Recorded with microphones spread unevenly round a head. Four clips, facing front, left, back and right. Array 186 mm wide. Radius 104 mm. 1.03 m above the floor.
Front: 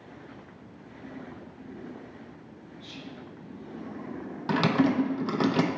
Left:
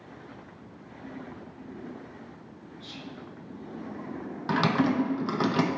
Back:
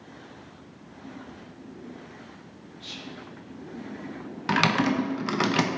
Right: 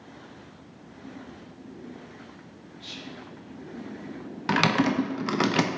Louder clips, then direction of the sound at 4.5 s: Right 1 dB, even; 50° right.